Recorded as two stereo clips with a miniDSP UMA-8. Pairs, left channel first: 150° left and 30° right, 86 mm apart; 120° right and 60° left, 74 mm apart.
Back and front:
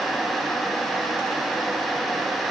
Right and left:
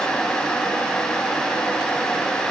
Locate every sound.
Only background noise.